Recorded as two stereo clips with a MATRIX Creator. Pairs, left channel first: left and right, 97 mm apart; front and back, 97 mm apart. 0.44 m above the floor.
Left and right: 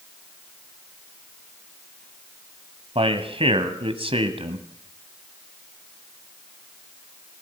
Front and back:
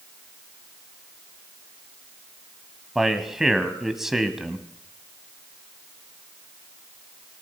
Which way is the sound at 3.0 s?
95° right.